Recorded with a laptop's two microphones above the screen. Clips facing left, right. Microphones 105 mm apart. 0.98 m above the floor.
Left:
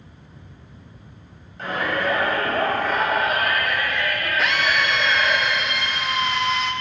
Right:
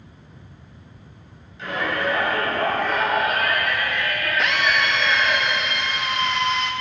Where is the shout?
45° left (ahead or behind), 5.5 m; by 5.4 s 30° left (ahead or behind), 4 m.